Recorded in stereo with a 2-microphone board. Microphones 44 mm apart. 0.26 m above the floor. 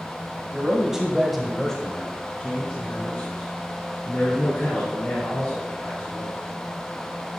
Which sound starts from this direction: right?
A man speaking, at 0.5 s.